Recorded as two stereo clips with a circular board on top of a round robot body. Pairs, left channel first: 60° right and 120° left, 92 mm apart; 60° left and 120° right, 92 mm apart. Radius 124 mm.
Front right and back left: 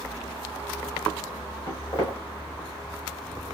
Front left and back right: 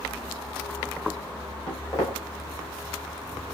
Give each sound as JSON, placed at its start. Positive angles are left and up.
{"t": 1.7, "sound": "footsteps", "azimuth_deg": 0, "distance_m": 3.5}